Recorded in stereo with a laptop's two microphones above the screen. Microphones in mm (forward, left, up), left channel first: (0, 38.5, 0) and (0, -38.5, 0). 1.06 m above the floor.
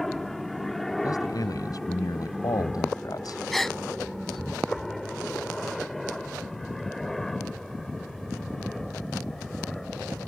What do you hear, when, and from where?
0.0 s a helicopter: centre (ahead or behind)
1.0 s a man speaking: 55° left (ahead or behind)
3.5 s a gasp: 5° left (ahead or behind)